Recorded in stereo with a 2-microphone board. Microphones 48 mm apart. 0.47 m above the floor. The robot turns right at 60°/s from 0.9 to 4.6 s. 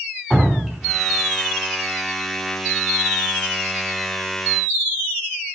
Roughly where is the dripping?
Centre.